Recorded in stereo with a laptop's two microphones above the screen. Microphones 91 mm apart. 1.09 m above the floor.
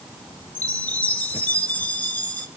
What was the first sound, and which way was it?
A chime, 20° left (ahead or behind).